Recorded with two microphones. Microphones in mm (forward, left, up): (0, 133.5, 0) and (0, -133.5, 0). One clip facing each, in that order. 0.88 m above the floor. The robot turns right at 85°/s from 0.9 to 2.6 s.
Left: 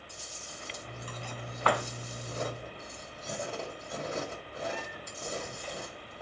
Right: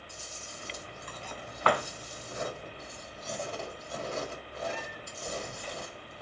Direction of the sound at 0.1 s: 15° left.